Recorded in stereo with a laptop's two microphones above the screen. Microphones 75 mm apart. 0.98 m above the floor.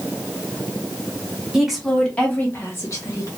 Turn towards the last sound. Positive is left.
turn(degrees=50)  # may be behind; listen again after turning